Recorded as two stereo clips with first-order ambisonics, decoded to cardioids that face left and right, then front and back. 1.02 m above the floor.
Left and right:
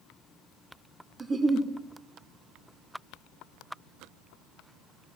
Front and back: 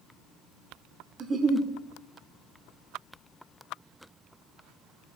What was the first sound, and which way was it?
A giggle, 145° right.